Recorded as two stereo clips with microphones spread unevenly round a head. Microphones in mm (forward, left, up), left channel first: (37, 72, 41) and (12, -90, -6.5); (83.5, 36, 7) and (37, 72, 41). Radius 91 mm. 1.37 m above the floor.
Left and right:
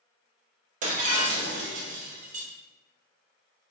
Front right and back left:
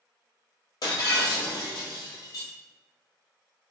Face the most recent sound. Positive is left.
turn(degrees=-100)